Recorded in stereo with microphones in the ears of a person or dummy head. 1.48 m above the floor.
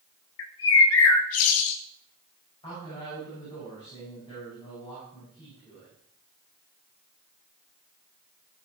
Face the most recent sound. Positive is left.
turn(degrees=30)  # may be behind; listen again after turning